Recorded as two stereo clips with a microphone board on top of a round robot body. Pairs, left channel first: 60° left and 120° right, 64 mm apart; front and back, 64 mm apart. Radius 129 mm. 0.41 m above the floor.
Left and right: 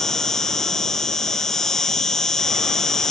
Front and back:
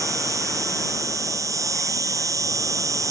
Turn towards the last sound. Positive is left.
turn(degrees=145)